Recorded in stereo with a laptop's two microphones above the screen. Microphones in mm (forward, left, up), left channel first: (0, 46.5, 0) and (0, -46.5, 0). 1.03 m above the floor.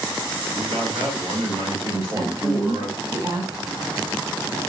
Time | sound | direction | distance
0.5 | a man speaking | 70° right (ahead or behind) | 2 m
1.9 | a woman speaking | 40° right (ahead or behind) | 3 m